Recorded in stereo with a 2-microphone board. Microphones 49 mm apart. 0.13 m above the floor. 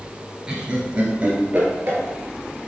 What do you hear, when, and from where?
0.5 s laughter: 20° right (ahead or behind), 2.5 m; by 2.0 s 45° right (ahead or behind), 2.5 m